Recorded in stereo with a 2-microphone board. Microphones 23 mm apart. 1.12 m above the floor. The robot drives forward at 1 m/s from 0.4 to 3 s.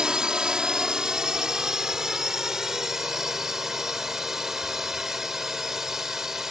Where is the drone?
40° right (ahead or behind); by 6.5 s 20° right (ahead or behind).